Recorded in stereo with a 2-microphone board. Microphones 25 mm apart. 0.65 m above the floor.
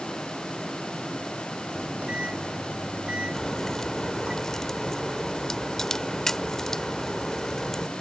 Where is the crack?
20° left (ahead or behind).